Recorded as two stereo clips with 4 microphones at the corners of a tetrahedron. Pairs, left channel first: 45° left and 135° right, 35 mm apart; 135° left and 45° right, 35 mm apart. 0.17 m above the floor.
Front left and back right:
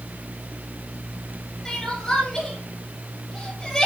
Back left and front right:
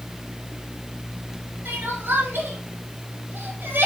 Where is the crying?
30° right, 5.5 m.